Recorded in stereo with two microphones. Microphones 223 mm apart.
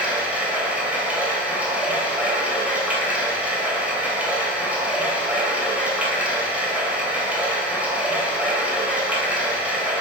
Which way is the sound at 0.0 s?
5° right (ahead or behind).